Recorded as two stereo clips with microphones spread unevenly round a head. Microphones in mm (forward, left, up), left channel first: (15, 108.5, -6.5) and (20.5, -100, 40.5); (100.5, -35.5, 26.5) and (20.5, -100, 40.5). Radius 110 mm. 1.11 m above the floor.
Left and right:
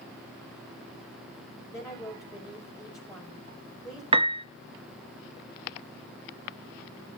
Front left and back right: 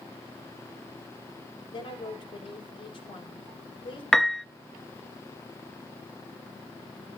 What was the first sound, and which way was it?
A woman speaking, 20° left.